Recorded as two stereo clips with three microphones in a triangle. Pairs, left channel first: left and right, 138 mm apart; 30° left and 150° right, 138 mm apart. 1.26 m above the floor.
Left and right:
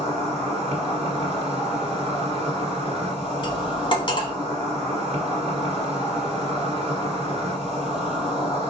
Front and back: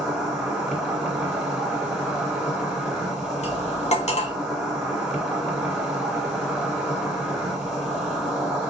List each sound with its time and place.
0.0 s an insect: 65° right, 2.0 m
3.4 s cutlery clinking: 45° left, 0.9 m